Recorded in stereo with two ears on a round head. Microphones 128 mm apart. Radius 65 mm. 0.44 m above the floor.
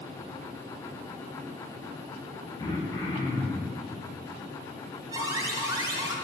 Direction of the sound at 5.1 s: 25° right (ahead or behind).